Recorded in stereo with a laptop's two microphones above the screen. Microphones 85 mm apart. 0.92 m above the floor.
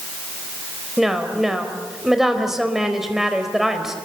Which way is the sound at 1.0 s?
5° right (ahead or behind).